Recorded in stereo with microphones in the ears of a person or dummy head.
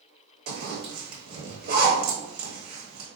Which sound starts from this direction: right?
A zipper, at 0.5 s.